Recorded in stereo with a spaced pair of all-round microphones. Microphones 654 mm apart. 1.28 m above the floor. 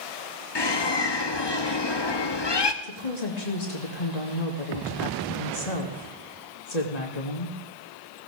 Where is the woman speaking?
80° left, 2.5 m.